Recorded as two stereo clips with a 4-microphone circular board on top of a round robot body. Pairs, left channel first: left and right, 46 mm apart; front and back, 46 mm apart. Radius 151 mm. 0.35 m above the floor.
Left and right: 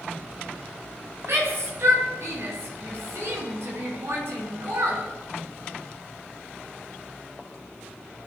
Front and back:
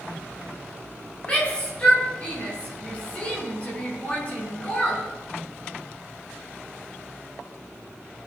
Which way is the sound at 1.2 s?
65° right.